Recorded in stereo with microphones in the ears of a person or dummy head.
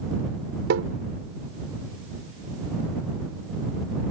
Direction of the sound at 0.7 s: 70° right (ahead or behind).